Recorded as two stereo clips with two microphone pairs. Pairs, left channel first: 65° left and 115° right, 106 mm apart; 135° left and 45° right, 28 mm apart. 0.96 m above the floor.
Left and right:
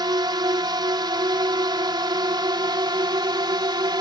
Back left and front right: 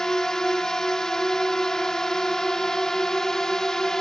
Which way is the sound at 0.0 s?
160° right.